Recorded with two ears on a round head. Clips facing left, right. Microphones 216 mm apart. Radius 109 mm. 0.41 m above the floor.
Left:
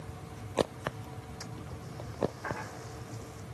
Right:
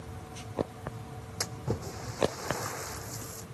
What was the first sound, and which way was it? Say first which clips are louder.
A splash: right 14 dB; 85° right.